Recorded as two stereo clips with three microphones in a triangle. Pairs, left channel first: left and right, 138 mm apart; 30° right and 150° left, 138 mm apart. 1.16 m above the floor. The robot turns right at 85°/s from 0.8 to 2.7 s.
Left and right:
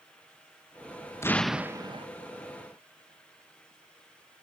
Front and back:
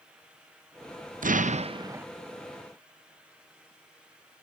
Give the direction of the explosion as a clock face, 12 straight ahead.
7 o'clock.